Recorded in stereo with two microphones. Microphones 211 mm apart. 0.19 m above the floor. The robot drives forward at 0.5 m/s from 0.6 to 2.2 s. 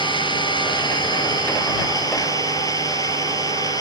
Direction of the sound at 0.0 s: 20° left (ahead or behind).